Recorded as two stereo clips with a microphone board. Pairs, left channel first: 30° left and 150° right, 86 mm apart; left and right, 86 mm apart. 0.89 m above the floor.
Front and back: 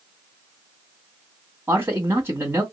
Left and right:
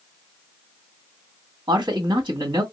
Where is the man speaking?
90° right, 2.0 m.